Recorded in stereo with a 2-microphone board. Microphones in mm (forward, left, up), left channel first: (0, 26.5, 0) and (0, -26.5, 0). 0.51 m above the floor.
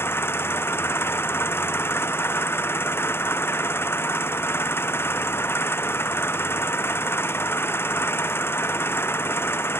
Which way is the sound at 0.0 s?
45° left (ahead or behind).